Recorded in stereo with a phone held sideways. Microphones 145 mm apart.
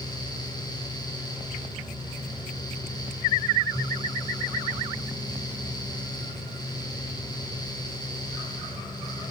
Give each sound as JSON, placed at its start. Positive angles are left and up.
{"t": 0.0, "sound": "a fan", "side_deg": 30, "distance_m": 8.5}